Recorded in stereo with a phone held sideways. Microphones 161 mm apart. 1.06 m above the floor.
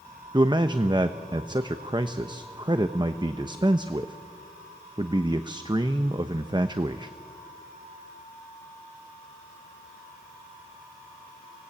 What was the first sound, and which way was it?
A man speaking, 30° right (ahead or behind).